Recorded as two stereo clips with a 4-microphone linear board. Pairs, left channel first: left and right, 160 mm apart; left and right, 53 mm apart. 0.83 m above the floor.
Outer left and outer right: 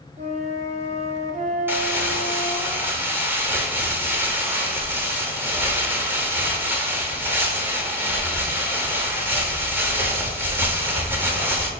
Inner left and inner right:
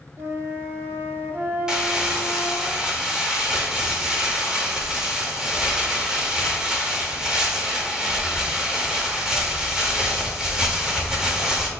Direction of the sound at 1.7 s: 10° right (ahead or behind).